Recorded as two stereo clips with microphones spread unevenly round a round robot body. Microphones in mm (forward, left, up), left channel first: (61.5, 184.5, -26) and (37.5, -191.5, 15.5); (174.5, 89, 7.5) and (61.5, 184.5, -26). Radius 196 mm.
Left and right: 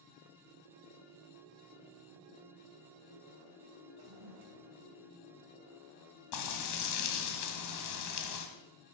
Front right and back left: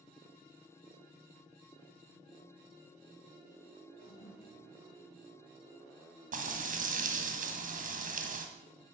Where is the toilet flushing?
75° right, 2 m.